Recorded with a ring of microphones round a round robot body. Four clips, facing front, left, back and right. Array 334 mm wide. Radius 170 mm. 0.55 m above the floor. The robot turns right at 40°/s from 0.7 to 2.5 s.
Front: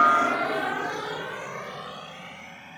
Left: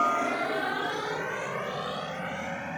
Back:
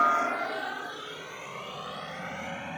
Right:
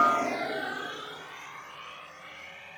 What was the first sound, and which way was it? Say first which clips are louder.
A helicopter: right 1 dB, front 5 dB; 15° right.